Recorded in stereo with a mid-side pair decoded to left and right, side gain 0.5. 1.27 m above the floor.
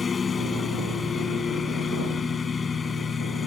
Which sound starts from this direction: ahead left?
A lawn mower, at 0.0 s.